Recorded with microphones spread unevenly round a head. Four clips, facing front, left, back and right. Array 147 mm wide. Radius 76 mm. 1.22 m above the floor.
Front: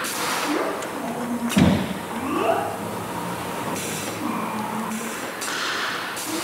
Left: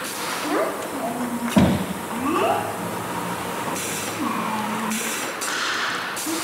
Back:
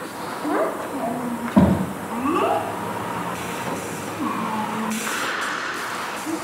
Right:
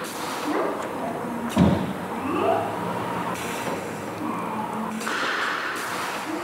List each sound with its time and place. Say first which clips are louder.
0.4 s a child speaking: left 2 dB, back 6 dB; 145° left, 3.5 m; by 6.3 s 120° left, 9.5 m